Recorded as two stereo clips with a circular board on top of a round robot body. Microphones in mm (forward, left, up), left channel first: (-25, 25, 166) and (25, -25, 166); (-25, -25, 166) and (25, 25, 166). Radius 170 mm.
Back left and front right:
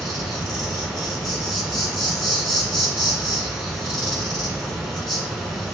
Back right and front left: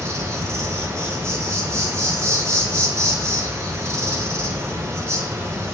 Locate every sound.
0.0 s an insect: 40° left, 1.4 m